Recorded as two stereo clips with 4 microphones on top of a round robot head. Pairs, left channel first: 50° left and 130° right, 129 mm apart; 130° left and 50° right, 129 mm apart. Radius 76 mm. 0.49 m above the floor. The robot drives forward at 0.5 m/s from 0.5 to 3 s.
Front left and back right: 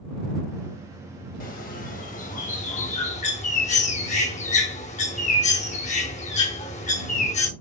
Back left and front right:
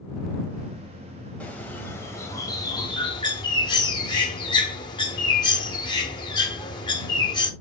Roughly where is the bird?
Ahead left.